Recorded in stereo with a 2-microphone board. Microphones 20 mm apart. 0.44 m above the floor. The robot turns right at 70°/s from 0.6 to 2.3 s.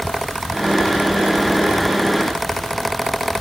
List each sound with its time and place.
Only background noise.